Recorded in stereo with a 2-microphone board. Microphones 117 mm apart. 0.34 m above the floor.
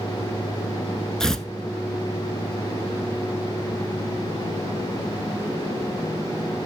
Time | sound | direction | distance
1.2 | tearing paper | 5° left (ahead or behind) | 1.0 m